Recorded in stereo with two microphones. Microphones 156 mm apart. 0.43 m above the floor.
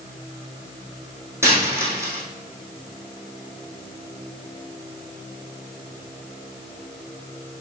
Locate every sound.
1.4 s a dropped coin: 15° right (ahead or behind), 2.5 m